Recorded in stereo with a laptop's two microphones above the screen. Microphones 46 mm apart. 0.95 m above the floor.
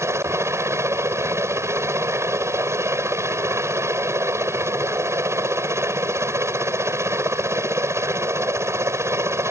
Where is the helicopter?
70° right (ahead or behind).